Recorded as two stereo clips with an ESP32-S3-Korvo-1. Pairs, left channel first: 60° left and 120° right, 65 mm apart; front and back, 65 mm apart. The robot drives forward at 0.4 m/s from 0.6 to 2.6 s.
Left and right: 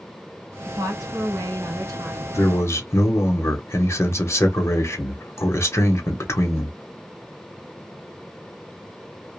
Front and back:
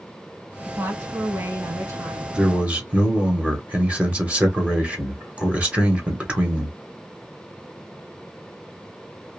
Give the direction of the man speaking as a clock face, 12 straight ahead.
9 o'clock.